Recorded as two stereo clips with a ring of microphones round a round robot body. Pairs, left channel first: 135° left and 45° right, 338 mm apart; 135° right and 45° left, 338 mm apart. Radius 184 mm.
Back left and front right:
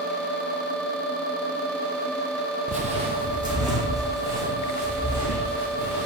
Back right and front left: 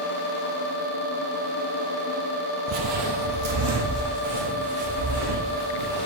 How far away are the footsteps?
About 0.6 m.